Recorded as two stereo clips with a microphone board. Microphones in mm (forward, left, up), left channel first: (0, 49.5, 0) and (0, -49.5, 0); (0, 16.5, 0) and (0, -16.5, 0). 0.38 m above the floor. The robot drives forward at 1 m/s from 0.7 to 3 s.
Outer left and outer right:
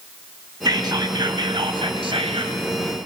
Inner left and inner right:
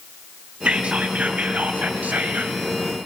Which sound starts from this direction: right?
Whispering, at 0.7 s.